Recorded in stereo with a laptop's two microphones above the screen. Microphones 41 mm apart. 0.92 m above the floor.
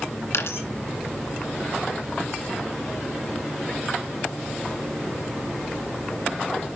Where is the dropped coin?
75° left (ahead or behind), 2 m.